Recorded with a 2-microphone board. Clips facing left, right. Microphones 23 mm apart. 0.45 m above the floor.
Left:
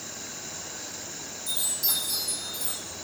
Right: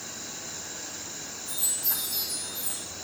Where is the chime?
75° left (ahead or behind), 4.5 m.